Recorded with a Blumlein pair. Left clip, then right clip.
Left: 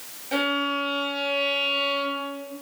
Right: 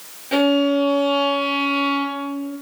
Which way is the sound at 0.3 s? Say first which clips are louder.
Right 7 dB; 20° right.